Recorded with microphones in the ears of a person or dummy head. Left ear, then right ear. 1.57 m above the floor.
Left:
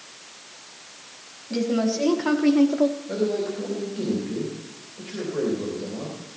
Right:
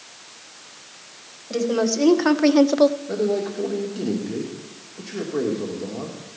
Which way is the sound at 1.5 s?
50° right (ahead or behind).